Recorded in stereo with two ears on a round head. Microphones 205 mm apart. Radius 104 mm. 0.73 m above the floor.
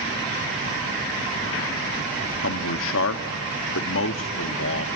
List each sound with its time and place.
2.4 s a man speaking: 60° left (ahead or behind), 1.1 m